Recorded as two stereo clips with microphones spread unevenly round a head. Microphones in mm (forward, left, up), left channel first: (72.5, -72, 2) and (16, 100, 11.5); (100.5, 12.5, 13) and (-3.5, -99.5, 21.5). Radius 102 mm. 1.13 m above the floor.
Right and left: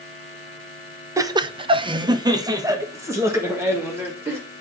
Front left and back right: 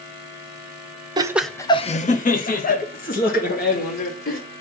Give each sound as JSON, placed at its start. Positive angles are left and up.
{"t": 1.2, "sound": "laughter", "azimuth_deg": 175, "distance_m": 0.8}